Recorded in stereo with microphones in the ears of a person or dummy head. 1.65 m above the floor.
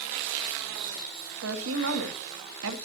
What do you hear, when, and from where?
1.4 s a woman speaking: 75° right (ahead or behind), 2 m